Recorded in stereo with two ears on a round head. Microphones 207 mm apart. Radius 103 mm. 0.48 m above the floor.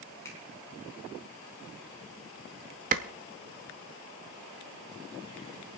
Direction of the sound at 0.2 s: 15° left (ahead or behind).